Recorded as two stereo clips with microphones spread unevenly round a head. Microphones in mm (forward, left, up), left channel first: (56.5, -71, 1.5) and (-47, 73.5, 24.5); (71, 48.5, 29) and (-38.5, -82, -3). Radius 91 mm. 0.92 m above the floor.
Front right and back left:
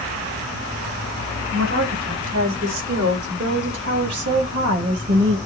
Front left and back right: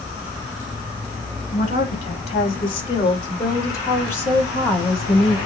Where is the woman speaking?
100° left, 6 m; by 5.4 s 140° left, 6 m.